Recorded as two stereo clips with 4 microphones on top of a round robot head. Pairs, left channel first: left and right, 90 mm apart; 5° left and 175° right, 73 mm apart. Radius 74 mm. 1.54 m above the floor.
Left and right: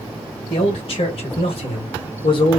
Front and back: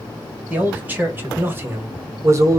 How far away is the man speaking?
About 2 m.